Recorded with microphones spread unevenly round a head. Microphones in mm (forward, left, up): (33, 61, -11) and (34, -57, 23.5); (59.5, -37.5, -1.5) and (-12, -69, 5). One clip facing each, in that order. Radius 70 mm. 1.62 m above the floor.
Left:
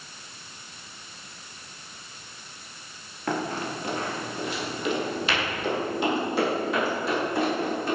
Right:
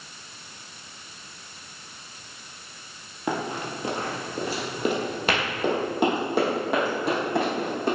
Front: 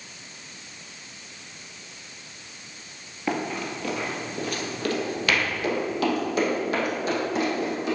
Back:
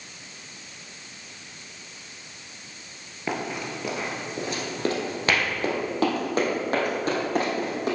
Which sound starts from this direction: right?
Running footsteps, at 3.3 s.